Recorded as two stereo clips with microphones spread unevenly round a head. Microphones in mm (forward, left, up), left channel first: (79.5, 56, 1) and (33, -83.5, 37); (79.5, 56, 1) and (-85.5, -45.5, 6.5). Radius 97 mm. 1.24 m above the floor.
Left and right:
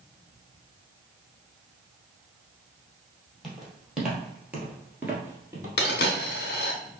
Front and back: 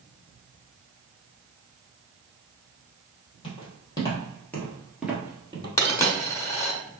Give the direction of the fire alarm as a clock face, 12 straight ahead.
I don't hear a fire alarm.